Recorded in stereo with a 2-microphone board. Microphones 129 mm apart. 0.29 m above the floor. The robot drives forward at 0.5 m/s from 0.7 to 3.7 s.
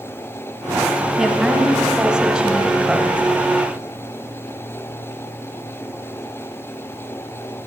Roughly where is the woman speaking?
Centre.